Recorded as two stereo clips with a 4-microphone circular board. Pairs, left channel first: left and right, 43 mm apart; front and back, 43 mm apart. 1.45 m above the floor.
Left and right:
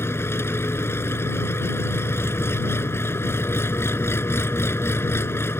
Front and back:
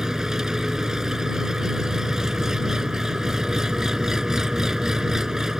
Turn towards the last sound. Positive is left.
turn(degrees=100)